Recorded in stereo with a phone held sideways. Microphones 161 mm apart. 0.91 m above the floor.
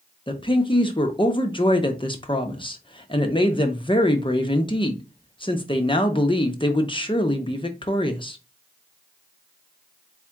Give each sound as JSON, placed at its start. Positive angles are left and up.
{"t": 0.3, "sound": "a woman speaking", "side_deg": 30, "distance_m": 0.8}